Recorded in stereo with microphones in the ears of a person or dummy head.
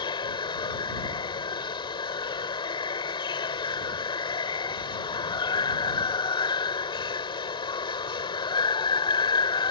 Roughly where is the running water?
Left.